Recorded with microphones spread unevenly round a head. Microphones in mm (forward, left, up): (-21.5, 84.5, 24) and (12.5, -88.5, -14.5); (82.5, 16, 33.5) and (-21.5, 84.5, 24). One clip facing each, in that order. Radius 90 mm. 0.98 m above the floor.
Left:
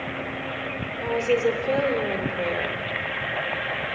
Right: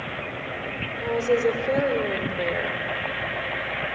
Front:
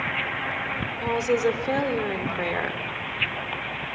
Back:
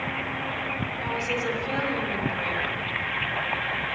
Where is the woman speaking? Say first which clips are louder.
Even, front 8 dB; 5° left, 3.5 m.